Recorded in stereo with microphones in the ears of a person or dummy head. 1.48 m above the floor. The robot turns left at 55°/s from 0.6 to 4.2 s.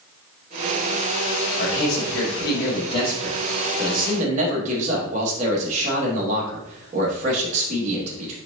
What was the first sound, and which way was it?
A man speaking, 105° left.